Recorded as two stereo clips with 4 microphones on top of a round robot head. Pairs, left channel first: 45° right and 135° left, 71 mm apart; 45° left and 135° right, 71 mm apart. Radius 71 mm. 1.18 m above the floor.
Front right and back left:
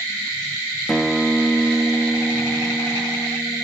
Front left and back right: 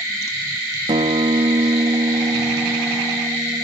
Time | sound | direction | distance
0.9 | a guitar | 135° right | ?